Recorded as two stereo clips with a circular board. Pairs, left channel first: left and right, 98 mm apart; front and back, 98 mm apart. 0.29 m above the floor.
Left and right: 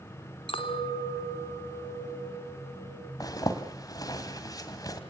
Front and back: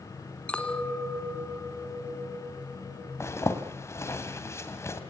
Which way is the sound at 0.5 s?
80° left.